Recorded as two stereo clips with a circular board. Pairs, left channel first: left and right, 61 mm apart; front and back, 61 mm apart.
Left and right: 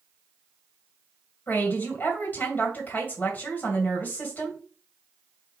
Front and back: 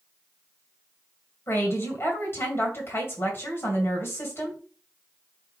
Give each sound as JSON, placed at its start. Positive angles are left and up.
{"t": 1.5, "sound": "a woman speaking", "azimuth_deg": 35, "distance_m": 2.0}